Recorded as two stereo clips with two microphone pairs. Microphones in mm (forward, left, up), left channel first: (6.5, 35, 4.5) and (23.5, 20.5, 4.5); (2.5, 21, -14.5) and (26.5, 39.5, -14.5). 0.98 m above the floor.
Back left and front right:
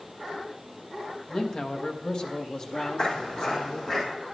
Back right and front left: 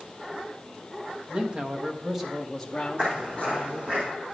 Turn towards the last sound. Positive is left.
turn(degrees=60)